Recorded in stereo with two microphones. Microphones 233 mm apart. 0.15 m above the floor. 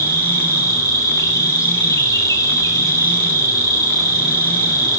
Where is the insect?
15° left (ahead or behind), 2.5 m.